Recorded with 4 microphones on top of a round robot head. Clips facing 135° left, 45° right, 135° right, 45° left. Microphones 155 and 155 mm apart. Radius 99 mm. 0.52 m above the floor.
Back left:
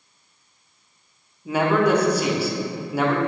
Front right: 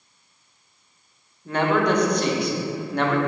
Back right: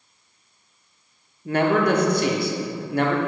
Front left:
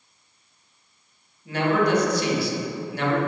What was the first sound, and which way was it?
A man speaking, 145° right.